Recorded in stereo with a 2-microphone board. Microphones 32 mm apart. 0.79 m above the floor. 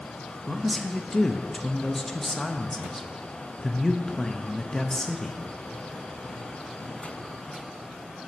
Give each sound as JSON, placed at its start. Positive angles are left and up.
{"t": 0.5, "sound": "a man speaking", "side_deg": 15, "distance_m": 0.5}